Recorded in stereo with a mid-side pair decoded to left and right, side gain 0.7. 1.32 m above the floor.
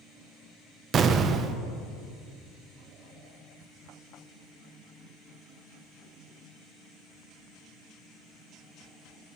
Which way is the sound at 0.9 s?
35° right.